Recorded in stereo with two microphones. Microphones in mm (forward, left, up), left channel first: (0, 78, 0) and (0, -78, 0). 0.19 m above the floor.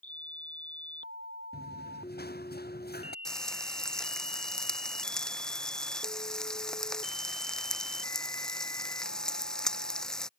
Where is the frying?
5° left (ahead or behind).